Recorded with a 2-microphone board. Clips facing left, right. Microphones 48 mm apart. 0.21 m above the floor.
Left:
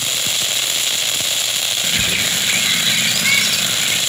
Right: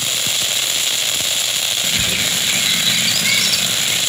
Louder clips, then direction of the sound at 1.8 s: Left 2 dB; 25° left (ahead or behind).